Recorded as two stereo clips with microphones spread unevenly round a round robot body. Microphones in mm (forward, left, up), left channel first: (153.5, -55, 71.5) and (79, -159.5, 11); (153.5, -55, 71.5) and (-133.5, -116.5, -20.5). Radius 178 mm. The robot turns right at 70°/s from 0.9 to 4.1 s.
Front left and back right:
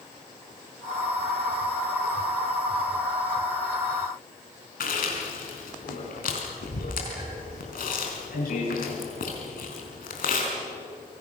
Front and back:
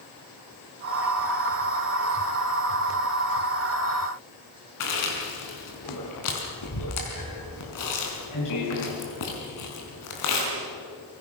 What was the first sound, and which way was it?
Chewing, 55° left.